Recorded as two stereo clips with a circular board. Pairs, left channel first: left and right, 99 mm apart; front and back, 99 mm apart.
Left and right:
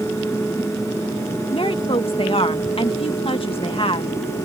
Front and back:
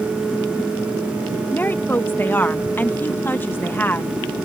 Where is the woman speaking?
70° left.